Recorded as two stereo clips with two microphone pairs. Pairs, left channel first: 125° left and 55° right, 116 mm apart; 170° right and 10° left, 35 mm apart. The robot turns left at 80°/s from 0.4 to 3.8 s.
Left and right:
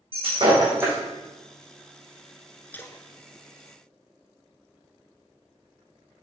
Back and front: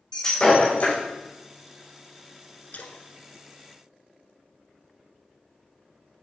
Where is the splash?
170° right, 0.7 m; by 4.9 s 105° left, 0.7 m.